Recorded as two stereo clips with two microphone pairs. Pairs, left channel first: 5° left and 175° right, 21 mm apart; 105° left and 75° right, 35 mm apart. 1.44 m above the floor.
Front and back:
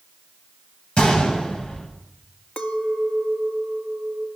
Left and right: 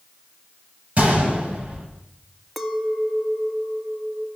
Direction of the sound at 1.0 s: 20° right.